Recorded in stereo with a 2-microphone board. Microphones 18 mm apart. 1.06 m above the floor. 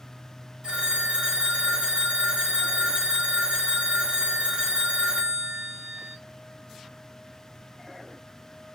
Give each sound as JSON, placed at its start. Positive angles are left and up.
{"t": 0.6, "sound": "a phone ringing", "side_deg": -65, "distance_m": 0.9}